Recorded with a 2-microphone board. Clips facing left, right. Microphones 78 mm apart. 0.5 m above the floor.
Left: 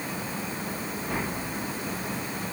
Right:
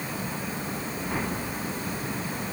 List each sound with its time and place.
Only background noise.